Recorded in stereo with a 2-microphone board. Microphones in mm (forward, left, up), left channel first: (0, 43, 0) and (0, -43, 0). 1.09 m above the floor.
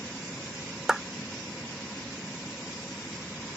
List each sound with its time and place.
0.9 s a clap: 10° right (ahead or behind)